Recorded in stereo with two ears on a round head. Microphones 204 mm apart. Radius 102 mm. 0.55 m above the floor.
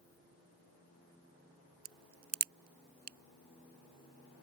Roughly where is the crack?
Right.